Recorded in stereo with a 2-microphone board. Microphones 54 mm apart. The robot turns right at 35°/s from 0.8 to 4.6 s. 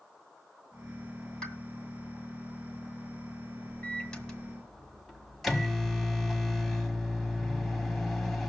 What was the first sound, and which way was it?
A pop, 20° left (ahead or behind).